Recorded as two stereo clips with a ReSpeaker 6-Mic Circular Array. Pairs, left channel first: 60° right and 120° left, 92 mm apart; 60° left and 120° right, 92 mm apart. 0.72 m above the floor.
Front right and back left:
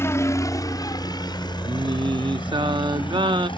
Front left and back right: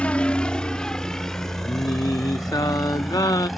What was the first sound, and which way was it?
A helicopter, 10° right.